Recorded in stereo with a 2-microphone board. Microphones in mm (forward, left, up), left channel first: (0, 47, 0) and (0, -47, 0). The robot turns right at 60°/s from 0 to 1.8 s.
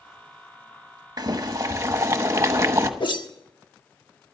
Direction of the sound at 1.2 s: 85° right.